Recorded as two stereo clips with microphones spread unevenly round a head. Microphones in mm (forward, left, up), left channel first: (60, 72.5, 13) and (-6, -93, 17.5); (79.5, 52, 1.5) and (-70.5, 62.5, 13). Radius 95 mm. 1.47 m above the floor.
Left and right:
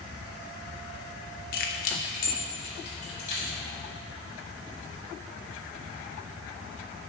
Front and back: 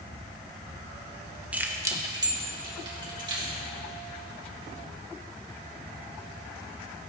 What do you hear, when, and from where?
1.5 s keys jangling: 100° left, 0.9 m; by 3.5 s 125° left, 3.5 m